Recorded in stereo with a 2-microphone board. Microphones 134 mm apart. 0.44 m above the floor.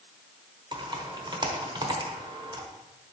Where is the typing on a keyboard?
35° right (ahead or behind), 1.1 m.